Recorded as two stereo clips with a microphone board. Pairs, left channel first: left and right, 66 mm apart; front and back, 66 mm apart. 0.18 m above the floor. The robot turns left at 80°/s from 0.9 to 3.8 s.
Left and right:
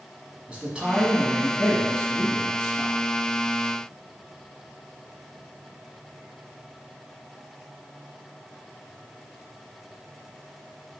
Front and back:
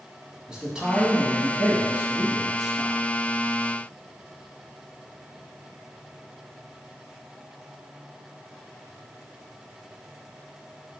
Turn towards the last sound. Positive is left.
turn(degrees=0)